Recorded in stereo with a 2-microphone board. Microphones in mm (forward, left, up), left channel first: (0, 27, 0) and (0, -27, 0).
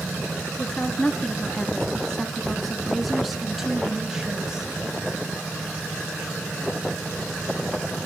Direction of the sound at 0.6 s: 25° left (ahead or behind).